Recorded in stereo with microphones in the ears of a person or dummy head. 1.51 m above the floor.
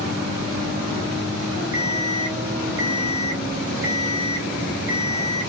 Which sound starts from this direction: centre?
An alarm clock, at 1.7 s.